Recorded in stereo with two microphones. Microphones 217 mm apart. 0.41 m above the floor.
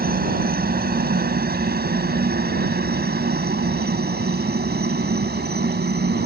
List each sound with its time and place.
0.0 s a helicopter: 45° right (ahead or behind); by 6.3 s 50° right (ahead or behind)